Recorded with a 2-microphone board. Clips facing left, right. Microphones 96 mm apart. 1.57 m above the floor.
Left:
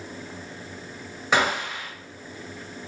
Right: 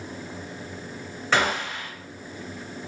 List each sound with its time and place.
1.3 s a gunshot: 15° left (ahead or behind), 1.2 m